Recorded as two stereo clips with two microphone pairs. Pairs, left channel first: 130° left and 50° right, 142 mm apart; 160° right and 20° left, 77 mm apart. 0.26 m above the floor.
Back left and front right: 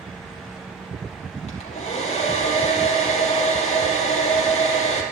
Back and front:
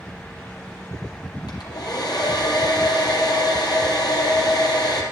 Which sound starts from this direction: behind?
A hair dryer, at 1.5 s.